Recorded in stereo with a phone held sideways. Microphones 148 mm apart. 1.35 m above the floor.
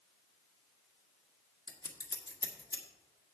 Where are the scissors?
25° left (ahead or behind), 1.6 m.